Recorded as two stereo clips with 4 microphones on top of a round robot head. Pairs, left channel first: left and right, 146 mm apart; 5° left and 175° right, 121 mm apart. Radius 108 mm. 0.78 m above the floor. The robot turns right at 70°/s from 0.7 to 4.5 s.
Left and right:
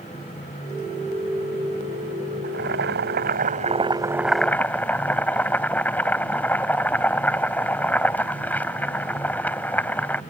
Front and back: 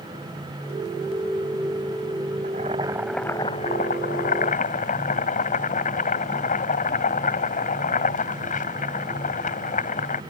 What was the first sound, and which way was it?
Boiling, 135° right.